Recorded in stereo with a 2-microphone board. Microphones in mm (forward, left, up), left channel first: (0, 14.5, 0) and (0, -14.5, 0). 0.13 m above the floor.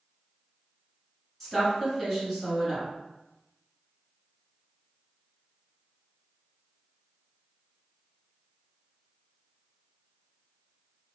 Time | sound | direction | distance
1.4 | a woman speaking | 5° left (ahead or behind) | 1.2 m